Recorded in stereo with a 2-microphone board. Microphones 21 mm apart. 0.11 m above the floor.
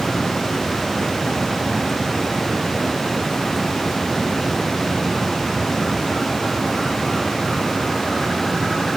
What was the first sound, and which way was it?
Only background noise.